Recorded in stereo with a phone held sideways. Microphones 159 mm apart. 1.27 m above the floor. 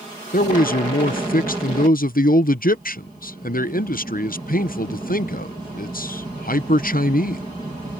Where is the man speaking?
65° left (ahead or behind).